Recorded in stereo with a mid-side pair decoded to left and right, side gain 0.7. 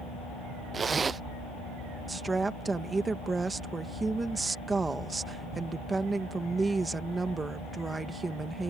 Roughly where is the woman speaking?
Ahead.